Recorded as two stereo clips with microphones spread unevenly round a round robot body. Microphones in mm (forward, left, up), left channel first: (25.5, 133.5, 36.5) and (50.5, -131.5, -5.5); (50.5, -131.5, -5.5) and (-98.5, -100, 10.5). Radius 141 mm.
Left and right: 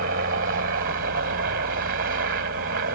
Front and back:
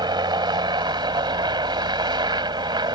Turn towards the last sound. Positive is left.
turn(degrees=-135)